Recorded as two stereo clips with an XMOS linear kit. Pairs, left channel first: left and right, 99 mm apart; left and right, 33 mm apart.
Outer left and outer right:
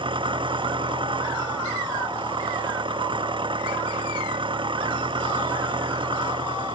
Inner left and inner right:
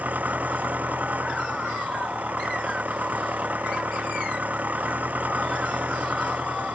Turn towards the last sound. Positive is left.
turn(degrees=-60)  # may be behind; listen again after turning